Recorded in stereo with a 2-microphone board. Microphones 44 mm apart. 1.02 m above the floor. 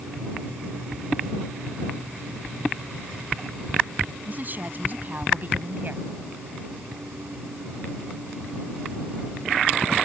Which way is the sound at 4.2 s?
40° right (ahead or behind).